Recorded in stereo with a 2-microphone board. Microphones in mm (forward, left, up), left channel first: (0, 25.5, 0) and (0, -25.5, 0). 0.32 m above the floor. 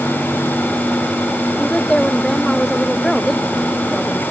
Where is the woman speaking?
10° left (ahead or behind); by 4.2 s centre (ahead or behind).